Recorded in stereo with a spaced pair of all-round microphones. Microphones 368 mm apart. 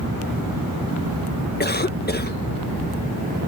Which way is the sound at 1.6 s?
25° left (ahead or behind).